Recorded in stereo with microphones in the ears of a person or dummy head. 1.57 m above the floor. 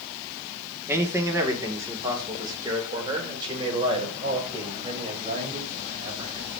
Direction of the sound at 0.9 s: 10° right (ahead or behind).